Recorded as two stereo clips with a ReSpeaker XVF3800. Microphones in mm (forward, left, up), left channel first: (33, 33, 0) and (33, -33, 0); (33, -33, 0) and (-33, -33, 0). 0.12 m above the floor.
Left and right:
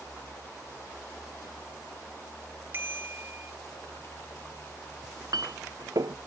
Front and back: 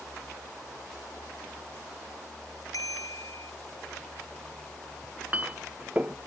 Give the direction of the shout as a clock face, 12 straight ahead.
No shout in this recording.